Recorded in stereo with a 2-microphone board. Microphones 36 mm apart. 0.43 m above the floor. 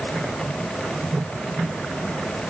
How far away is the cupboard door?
I don't hear a cupboard door.